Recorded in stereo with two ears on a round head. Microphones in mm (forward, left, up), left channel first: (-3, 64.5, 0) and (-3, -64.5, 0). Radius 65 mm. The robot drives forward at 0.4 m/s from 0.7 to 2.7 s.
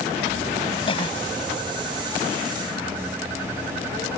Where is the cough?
40° left (ahead or behind).